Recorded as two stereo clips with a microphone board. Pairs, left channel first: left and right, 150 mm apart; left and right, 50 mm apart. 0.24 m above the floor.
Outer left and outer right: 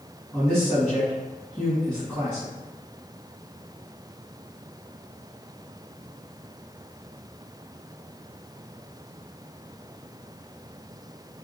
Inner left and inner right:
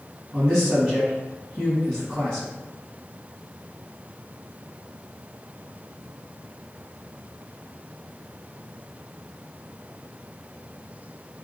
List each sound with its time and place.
0.3 s a man speaking: centre (ahead or behind), 1.5 m